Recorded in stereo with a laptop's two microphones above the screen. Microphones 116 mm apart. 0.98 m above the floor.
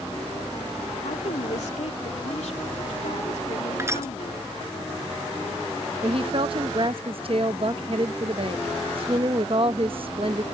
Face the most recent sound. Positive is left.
turn(degrees=-50)  # may be behind; listen again after turning